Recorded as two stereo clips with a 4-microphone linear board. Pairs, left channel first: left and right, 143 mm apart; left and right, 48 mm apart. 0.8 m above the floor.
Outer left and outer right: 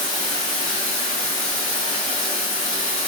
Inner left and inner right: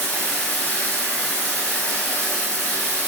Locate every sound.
0.0 s running water: 30° left (ahead or behind), 1.1 m